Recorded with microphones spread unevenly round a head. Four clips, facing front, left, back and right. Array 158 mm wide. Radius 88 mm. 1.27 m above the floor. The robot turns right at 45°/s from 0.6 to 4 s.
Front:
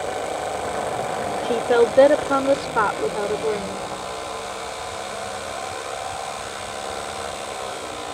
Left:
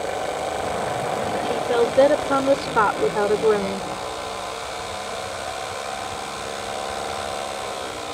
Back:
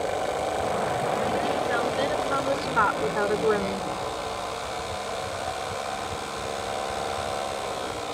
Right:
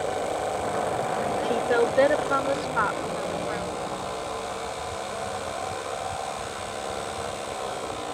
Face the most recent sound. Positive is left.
turn(degrees=115)